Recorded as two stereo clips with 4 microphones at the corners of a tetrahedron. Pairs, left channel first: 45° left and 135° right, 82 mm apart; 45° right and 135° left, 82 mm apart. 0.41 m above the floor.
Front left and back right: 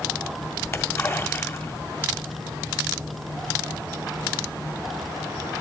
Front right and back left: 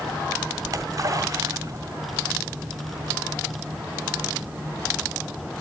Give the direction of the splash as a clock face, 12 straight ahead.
9 o'clock.